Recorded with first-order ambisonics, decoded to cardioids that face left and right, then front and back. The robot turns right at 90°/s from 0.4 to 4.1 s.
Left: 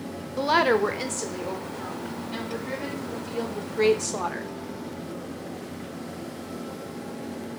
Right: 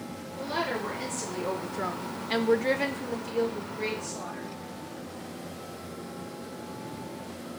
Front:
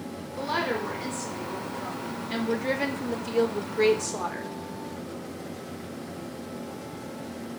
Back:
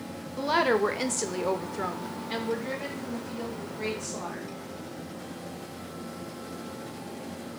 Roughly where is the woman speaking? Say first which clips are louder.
Left 10 dB, back 4 dB; left.